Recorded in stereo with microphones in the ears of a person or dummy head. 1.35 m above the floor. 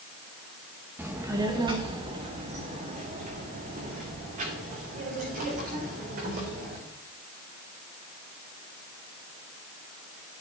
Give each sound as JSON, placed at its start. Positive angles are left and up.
{"t": 1.0, "sound": "a child speaking", "side_deg": -10, "distance_m": 0.9}